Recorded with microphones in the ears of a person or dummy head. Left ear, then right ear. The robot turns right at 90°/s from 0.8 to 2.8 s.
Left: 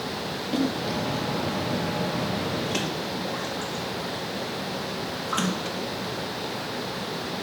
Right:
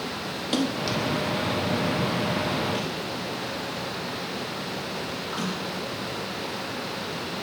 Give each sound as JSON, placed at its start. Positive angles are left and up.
{"t": 0.5, "sound": "a splash", "side_deg": -40, "distance_m": 3.5}